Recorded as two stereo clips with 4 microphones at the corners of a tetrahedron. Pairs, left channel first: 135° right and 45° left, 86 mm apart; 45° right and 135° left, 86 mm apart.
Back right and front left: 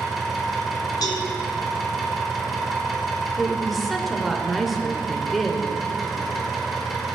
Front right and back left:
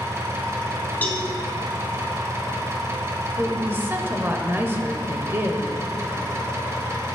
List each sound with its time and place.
0.0 s an engine running: 135° left, 1.3 m
1.0 s a cowbell: 110° right, 1.6 m
3.4 s a woman speaking: 135° left, 0.9 m